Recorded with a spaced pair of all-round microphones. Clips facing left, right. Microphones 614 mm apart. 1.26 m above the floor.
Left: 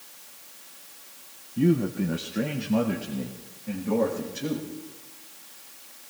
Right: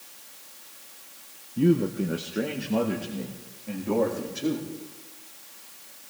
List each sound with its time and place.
1.6 s a man speaking: 5° left (ahead or behind), 0.5 m; by 4.7 s 45° left (ahead or behind), 2.5 m